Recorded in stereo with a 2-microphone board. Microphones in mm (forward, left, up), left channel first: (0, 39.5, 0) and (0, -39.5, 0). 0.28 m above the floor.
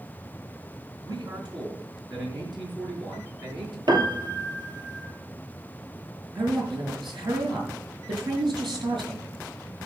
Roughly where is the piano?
Right.